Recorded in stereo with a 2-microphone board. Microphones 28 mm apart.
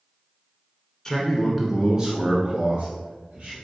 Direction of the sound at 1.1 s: 20° left (ahead or behind).